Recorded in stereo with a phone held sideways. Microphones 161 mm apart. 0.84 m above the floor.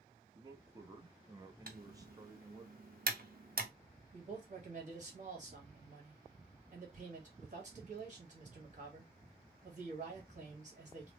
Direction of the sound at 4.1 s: 45° right (ahead or behind).